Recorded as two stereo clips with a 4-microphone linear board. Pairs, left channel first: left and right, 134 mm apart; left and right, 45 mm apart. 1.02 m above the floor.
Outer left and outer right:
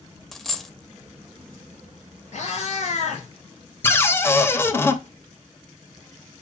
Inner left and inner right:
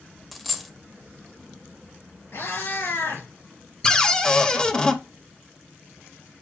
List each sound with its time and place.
0.3 s a dropped coin: centre (ahead or behind), 0.6 m
2.3 s a cat meowing: 65° left (ahead or behind), 3.5 m
3.8 s a cupboard door: 20° left (ahead or behind), 0.6 m